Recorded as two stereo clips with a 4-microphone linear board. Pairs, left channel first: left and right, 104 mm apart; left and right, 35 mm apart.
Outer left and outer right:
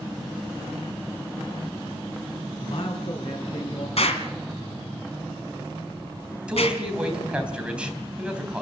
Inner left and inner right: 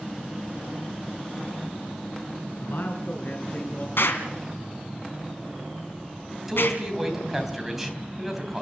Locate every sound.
2.6 s a man speaking: 65° left (ahead or behind), 5 m; by 3.9 s 60° left (ahead or behind), 5.5 m
4.0 s an explosion: 80° left, 2.5 m
6.5 s a man speaking: 10° right (ahead or behind), 3.5 m